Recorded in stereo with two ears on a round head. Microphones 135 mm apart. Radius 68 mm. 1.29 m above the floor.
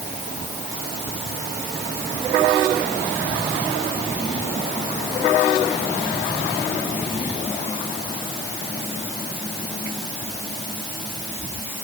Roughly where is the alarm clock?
I don't hear an alarm clock.